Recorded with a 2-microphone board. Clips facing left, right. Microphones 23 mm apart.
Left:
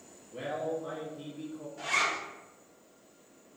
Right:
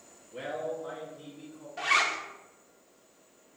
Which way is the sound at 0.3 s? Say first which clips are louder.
Left 1 dB; 25° right (ahead or behind).